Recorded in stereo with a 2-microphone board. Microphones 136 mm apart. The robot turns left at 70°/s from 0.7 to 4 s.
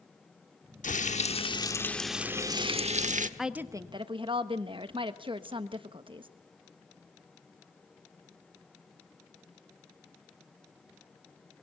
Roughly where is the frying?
Left.